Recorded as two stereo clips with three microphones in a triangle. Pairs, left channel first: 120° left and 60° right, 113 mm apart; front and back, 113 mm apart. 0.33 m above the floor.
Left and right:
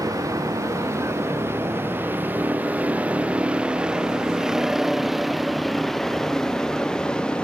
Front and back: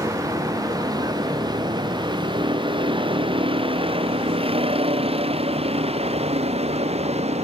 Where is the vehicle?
120° right; by 7.5 s 160° right.